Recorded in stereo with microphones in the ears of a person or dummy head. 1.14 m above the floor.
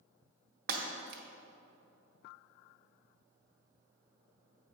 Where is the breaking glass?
55° right (ahead or behind), 1.1 m.